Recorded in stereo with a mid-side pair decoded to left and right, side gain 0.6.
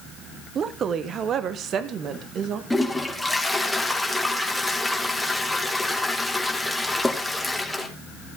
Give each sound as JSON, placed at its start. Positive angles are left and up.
{"t": 0.6, "sound": "a woman speaking", "azimuth_deg": -45, "distance_m": 1.0}
{"t": 2.7, "sound": "a toilet flushing", "azimuth_deg": 0, "distance_m": 2.5}